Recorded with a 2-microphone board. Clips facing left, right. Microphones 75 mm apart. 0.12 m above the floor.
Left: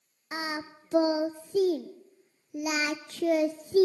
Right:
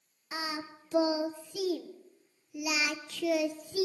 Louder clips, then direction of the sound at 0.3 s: Left 3 dB; 40° left (ahead or behind).